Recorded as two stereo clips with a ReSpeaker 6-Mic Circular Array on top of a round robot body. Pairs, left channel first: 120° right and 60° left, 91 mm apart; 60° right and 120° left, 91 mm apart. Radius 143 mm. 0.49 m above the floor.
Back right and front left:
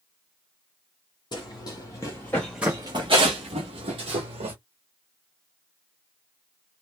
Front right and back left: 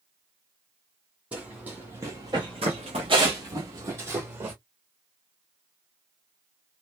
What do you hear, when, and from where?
1.3 s running footsteps: 165° right, 1.0 m; by 4.5 s 50° left, 1.2 m